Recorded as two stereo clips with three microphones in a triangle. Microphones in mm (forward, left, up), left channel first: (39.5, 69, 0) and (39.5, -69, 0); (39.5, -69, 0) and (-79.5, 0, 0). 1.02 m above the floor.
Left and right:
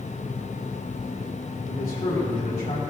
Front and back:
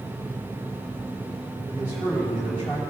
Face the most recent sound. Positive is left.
turn(degrees=80)